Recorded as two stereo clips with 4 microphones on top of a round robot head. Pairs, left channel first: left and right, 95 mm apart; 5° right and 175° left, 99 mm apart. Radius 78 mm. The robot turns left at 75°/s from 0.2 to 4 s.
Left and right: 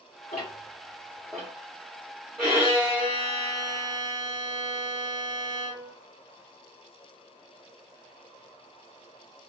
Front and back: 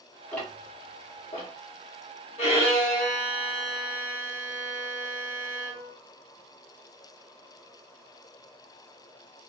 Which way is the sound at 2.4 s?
Straight ahead.